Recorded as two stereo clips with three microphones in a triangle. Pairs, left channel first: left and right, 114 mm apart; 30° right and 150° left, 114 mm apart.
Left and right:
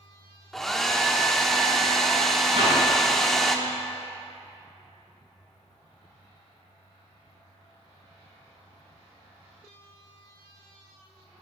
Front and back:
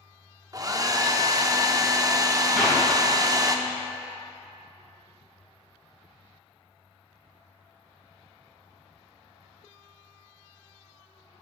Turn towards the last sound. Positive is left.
turn(degrees=-120)